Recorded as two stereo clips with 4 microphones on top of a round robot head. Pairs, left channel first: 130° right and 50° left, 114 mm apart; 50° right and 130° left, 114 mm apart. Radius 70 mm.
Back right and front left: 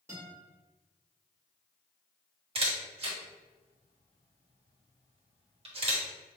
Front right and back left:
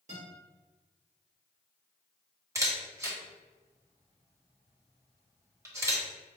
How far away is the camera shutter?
About 1.4 m.